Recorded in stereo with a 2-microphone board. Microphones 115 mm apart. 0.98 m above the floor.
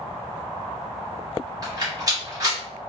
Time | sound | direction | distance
1.6 | a rattle | 30° right (ahead or behind) | 1.5 m